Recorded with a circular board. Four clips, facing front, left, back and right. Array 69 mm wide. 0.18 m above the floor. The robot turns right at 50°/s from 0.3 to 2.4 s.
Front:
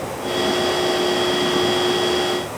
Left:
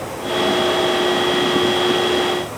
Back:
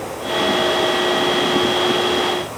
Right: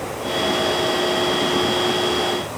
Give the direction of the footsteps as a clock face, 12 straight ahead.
No footsteps in this recording.